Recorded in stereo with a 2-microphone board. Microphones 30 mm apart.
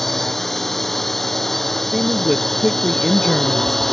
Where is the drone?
10° left (ahead or behind).